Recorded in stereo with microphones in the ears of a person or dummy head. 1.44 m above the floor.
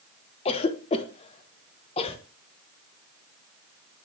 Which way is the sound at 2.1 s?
40° right (ahead or behind).